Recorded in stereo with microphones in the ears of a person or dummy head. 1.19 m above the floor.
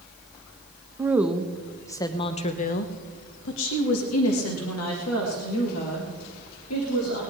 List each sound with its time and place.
1.0 s a woman speaking: 10° right (ahead or behind), 1.1 m; by 7.2 s 80° left, 3 m